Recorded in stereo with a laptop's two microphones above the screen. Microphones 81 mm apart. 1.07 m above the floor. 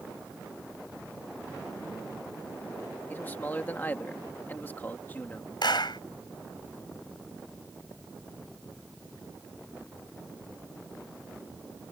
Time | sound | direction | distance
3.1 | a man speaking | 25° left (ahead or behind) | ?
5.6 | a clap | 75° left (ahead or behind) | ?